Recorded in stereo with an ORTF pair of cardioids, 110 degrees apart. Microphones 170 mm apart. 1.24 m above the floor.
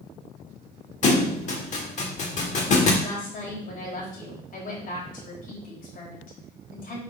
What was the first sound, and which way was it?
A thud, 45° left.